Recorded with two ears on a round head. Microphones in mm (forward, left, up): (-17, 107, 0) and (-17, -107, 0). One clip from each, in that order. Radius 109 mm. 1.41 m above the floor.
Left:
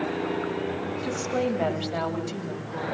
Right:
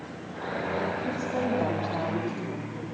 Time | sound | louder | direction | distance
1.0 | a woman speaking | left 2 dB | 80° left | 8 m